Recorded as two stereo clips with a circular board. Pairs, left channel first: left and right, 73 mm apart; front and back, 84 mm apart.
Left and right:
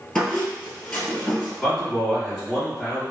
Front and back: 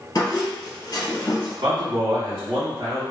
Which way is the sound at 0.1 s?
10° left.